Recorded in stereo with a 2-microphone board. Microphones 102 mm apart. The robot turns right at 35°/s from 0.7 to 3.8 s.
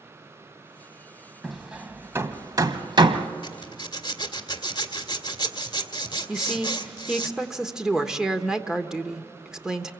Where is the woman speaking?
5° right (ahead or behind), 1.2 m.